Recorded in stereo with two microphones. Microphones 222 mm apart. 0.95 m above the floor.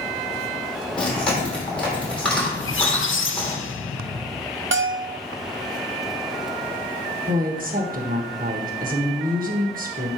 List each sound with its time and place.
1.0 s chewing: 5° left (ahead or behind), 3 m
2.5 s a squeak: 60° left (ahead or behind), 0.6 m
4.7 s a bell: 60° right (ahead or behind), 0.5 m
7.3 s a woman speaking: 40° right (ahead or behind), 1.1 m